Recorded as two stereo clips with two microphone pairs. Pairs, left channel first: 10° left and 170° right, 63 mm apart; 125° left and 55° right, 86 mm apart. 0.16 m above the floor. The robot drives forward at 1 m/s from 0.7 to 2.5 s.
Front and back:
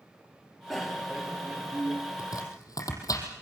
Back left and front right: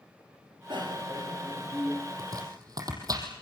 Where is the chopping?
10° right, 5.5 m.